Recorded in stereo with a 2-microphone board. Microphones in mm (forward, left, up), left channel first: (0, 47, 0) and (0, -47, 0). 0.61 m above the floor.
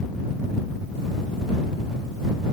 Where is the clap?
No clap in this recording.